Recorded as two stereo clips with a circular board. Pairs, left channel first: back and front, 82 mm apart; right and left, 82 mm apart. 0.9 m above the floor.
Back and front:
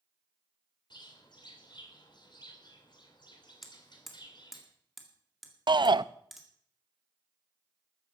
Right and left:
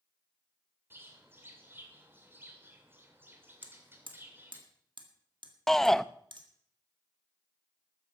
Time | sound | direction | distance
0.9 | a bird | 155° left | 2.5 m
3.6 | hammering | 85° left | 1.9 m
5.7 | a shout | 5° right | 0.6 m